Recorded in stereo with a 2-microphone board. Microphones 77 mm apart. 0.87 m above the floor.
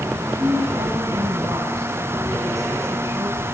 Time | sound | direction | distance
0.2 | a woman speaking | 60° right (ahead or behind) | 9.5 m